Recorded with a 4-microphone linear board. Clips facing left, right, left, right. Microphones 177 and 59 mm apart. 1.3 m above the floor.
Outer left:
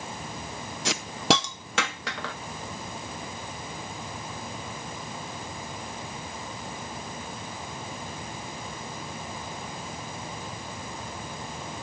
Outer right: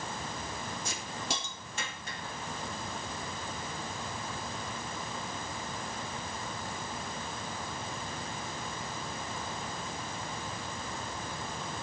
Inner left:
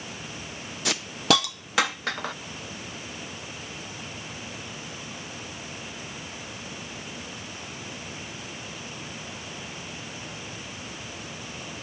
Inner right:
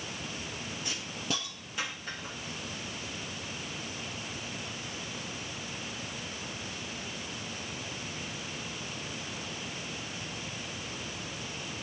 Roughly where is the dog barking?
No dog barking in this recording.